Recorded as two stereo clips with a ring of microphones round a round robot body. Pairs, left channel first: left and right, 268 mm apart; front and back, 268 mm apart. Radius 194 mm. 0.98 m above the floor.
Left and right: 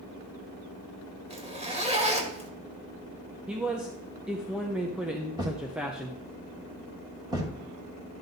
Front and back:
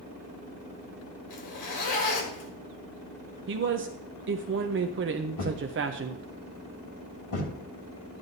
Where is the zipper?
20° right, 2 m.